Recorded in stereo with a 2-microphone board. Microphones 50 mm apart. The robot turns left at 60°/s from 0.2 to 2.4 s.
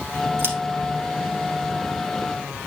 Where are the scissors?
55° right (ahead or behind), 2.5 m; by 0.6 s 50° right (ahead or behind), 2.5 m.